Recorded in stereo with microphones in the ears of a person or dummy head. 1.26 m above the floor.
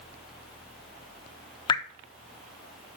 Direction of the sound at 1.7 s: 30° left (ahead or behind).